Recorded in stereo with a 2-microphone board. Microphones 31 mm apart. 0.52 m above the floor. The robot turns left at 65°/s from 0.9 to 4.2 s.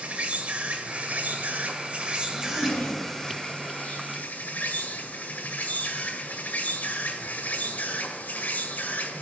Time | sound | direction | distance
0.0 | an insect | 50° right | 1.6 m
2.3 | a zipper | 80° left | 2.5 m